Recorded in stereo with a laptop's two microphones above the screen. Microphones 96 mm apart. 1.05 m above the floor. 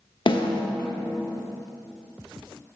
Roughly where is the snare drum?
Left.